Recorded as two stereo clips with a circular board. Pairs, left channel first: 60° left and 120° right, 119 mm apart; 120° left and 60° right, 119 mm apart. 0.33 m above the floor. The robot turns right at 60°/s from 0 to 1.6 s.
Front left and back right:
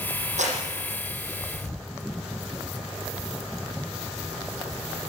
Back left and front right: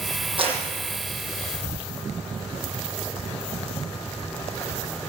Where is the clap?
105° right, 8.5 m; by 0.6 s 95° right, 8.5 m.